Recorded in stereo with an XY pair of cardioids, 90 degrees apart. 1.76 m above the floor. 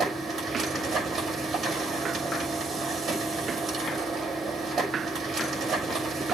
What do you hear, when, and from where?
0.0 s a machine running: 60° right, 6.5 m